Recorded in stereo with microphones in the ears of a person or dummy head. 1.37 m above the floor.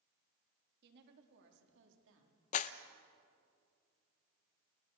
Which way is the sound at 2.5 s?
40° left (ahead or behind).